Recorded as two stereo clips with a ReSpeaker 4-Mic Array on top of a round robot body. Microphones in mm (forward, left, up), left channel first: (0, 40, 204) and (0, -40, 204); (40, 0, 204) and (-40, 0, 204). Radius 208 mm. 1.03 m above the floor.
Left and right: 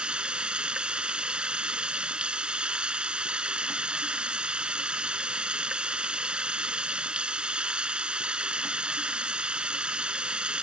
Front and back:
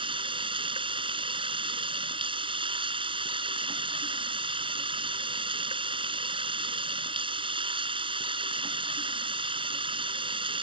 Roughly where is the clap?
I don't hear a clap.